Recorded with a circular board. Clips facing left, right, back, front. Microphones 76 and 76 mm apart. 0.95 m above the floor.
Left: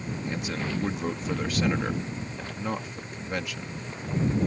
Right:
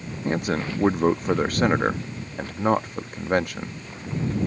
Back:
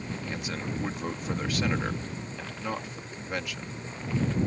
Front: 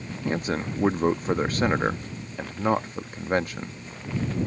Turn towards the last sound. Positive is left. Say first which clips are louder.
# right 8 dB, front 10 dB
turn(degrees=-50)